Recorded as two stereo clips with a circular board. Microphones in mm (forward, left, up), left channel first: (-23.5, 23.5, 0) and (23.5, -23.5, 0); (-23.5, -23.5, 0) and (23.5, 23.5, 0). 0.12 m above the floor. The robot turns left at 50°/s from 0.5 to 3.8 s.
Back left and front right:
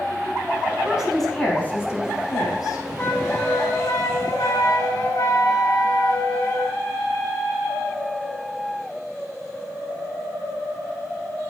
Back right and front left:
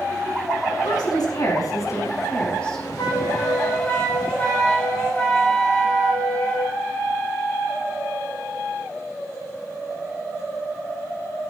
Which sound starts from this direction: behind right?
A woman speaking, at 0.8 s.